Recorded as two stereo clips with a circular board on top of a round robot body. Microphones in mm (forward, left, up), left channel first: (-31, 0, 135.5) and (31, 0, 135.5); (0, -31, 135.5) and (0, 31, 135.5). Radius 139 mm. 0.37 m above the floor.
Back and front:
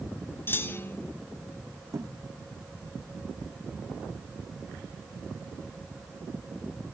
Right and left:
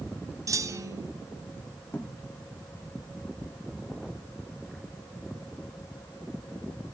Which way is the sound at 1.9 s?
30° right.